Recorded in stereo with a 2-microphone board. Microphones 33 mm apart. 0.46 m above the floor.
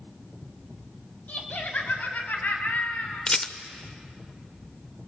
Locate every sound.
1.3 s laughter: 55° left (ahead or behind), 3 m; by 3.3 s 65° left (ahead or behind), 4 m
3.3 s a rattle: 30° left (ahead or behind), 0.9 m